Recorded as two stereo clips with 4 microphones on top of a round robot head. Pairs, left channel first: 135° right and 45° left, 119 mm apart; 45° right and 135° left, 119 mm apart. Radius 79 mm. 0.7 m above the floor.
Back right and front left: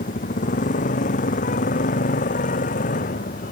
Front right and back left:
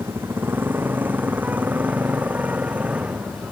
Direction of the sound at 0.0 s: 150° right.